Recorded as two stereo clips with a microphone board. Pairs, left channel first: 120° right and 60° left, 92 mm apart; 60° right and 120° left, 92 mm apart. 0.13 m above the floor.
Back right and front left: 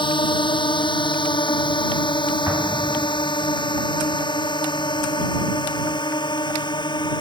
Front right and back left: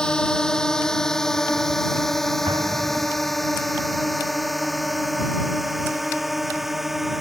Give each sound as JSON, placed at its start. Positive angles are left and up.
{"t": 0.0, "sound": "a drone", "azimuth_deg": -140}
{"t": 2.5, "sound": "an explosion", "azimuth_deg": 120}